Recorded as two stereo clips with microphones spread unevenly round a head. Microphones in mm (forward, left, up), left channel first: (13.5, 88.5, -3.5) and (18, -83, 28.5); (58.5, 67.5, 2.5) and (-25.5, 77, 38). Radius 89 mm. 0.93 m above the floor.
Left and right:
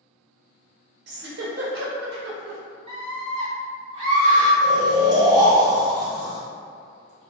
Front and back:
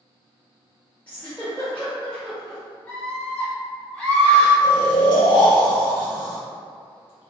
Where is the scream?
40° right, 0.7 m.